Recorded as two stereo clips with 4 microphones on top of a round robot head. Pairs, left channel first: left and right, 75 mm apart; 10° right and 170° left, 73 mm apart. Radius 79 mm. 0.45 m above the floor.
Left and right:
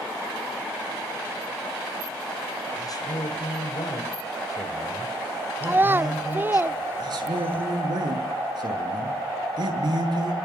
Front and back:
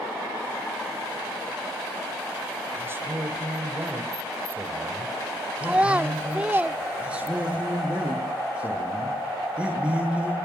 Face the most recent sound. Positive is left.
turn(degrees=-115)